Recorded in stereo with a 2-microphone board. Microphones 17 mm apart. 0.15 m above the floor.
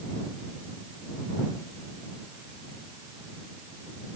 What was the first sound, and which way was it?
Only background noise.